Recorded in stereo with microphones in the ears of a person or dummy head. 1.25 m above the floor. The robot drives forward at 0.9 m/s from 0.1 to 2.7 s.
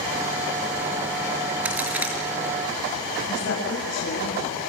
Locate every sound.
1.6 s a crack: 5° right (ahead or behind), 6 m
3.3 s a woman speaking: 75° left (ahead or behind), 6.5 m